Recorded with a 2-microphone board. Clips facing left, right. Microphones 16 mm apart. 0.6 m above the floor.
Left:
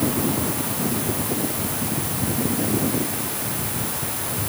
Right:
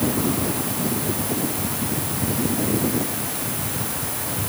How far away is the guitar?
I don't hear a guitar.